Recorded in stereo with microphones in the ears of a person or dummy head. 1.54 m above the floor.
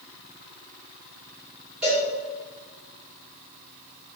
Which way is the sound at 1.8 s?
5° right (ahead or behind).